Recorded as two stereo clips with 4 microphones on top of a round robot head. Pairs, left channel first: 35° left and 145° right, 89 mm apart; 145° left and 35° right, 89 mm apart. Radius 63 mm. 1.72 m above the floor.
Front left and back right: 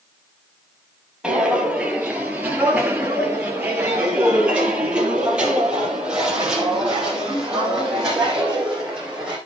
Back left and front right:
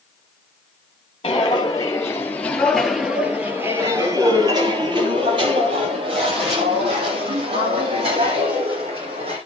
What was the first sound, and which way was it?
Footsteps, 135° left.